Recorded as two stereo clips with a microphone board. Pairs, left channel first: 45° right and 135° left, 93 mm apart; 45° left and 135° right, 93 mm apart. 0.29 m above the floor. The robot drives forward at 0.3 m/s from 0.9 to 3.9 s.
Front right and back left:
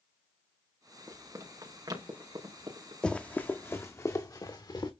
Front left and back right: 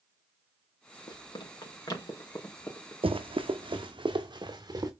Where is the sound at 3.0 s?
125° right, 1.0 m; by 4.9 s 85° right, 2 m.